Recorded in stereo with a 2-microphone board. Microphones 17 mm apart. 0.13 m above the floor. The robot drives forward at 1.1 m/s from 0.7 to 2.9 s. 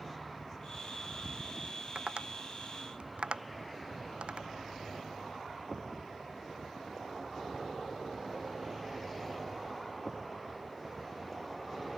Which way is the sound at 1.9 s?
85° right.